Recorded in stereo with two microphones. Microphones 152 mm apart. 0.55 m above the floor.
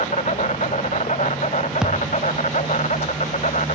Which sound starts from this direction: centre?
A thud, at 1.8 s.